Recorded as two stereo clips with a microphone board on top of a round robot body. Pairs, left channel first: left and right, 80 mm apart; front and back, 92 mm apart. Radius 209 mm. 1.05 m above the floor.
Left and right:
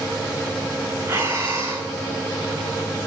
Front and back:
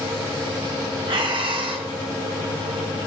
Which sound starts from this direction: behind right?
Breathing, at 1.1 s.